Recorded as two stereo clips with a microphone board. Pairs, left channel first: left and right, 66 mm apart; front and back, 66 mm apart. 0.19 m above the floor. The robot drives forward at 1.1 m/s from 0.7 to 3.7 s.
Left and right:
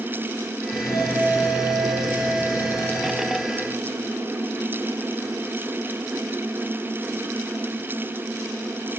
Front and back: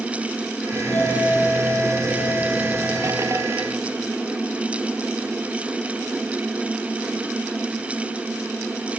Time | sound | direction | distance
0.7 | a doorbell | 60° left | 10 m